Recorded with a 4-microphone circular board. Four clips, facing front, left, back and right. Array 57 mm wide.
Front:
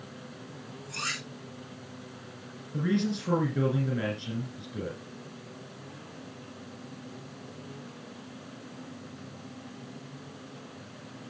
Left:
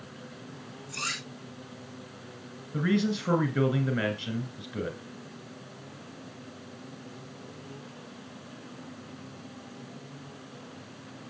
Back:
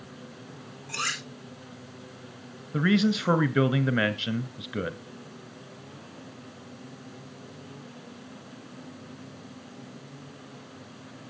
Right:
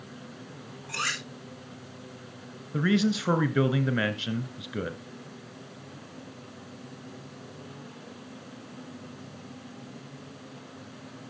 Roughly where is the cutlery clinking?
Behind right.